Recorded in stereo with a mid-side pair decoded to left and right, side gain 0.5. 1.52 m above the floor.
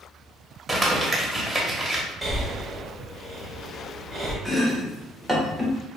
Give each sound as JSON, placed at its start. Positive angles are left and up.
{"t": 0.7, "sound": "crumpling", "azimuth_deg": -10, "distance_m": 1.4}
{"t": 2.2, "sound": "breathing", "azimuth_deg": -15, "distance_m": 1.2}
{"t": 4.5, "sound": "chopping", "azimuth_deg": 0, "distance_m": 0.9}